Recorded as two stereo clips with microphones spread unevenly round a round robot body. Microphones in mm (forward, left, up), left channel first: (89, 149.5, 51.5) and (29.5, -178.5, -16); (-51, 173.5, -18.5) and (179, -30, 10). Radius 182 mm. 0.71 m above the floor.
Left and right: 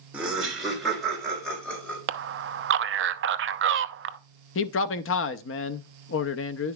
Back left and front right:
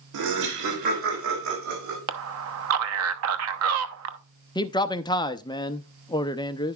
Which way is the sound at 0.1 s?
20° right.